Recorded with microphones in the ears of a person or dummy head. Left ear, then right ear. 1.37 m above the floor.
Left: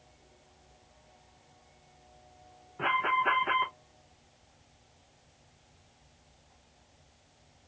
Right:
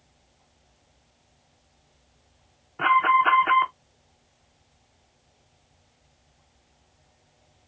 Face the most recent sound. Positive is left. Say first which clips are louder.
# right 9 dB
turn(degrees=-40)  # may be behind; listen again after turning